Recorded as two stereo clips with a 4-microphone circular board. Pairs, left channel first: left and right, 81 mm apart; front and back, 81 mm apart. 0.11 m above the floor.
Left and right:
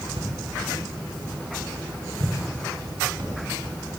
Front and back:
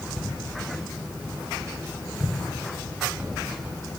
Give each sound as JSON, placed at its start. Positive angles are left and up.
{"t": 0.2, "sound": "footsteps", "azimuth_deg": -100, "distance_m": 9.0}